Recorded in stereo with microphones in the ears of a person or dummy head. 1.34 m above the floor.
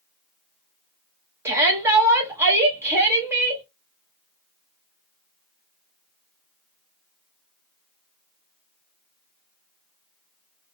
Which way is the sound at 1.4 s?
15° right (ahead or behind).